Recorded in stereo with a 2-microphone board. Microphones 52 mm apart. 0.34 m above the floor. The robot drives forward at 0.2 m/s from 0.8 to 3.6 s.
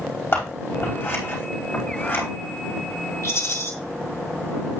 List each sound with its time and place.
0.3 s scissors: 45° left (ahead or behind), 4 m
3.2 s a rattle: 60° left (ahead or behind), 1.8 m